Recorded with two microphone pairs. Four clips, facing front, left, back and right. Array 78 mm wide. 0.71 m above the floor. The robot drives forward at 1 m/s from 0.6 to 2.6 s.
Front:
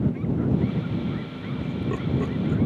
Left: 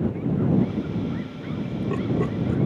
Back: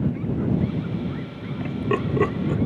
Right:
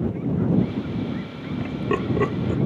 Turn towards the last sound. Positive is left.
turn(degrees=-150)